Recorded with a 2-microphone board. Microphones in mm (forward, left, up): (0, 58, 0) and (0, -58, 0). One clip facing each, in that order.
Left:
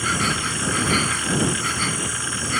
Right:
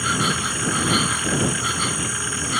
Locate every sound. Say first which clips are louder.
0.0 s an insect: right 1 dB; 10° right (ahead or behind)